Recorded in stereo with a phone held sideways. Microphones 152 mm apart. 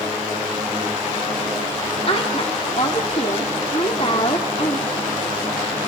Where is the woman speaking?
40° left (ahead or behind), 1.6 m.